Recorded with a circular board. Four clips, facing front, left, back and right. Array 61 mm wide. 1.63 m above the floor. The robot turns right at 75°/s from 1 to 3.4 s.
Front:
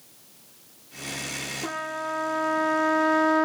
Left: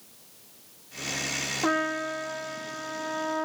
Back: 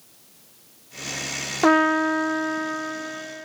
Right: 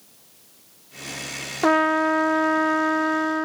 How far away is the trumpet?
About 0.5 m.